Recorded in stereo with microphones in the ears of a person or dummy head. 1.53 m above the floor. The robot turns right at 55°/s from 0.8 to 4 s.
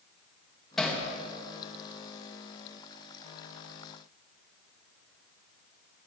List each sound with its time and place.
0.8 s hammering: 5° left (ahead or behind), 2.0 m; by 1.0 s 10° right (ahead or behind), 2.0 m